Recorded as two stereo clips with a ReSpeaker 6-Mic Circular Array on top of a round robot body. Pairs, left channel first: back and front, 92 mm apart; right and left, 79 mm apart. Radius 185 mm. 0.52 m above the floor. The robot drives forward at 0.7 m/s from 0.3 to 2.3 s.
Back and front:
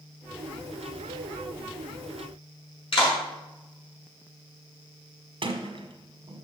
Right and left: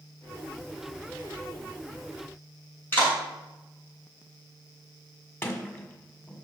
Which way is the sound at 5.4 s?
30° right.